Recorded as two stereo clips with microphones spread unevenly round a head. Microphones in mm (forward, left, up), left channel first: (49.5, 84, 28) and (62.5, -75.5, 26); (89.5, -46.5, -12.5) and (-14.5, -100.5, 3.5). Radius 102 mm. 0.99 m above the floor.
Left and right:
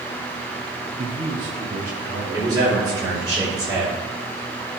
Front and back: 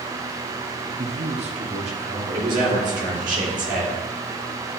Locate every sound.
1.0 s a man speaking: 110° right, 1.0 m; by 3.3 s 140° right, 4 m
2.3 s a man speaking: 155° right, 2.5 m